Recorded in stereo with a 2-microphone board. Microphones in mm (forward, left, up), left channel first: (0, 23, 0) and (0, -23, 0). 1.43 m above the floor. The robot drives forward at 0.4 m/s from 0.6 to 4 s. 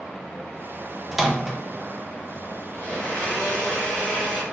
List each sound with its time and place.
1.1 s a microwave: 5° right (ahead or behind), 0.7 m
2.7 s a blender: 25° left (ahead or behind), 1.5 m; by 4.4 s 15° left (ahead or behind), 2.0 m